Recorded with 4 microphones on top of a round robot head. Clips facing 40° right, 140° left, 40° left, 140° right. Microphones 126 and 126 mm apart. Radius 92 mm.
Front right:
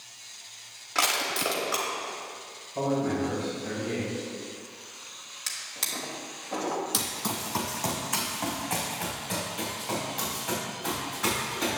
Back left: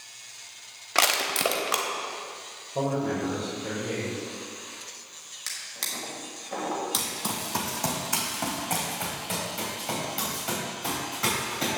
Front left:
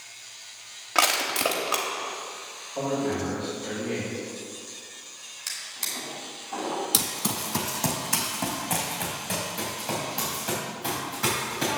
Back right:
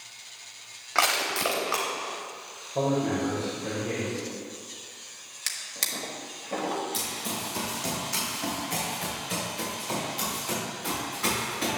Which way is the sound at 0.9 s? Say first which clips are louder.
Back left 3 dB, front left 1 dB; 110° left.